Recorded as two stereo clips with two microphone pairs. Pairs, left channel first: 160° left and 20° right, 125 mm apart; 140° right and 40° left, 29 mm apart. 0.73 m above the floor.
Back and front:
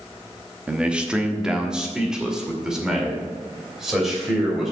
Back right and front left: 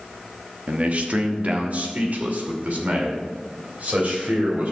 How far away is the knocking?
I don't hear knocking.